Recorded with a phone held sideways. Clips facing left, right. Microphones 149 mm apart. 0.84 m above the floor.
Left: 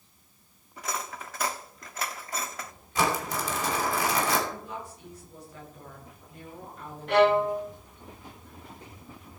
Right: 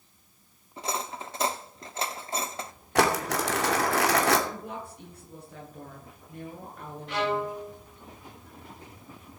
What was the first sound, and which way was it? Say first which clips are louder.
Cutlery clinking: right 2 dB; 25° right (ahead or behind).